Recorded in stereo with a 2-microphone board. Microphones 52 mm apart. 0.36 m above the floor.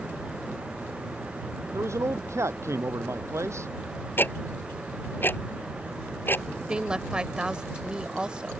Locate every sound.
1.7 s a man speaking: 65° right (ahead or behind)
4.2 s ticking: 45° left (ahead or behind)
6.7 s a woman speaking: 20° right (ahead or behind)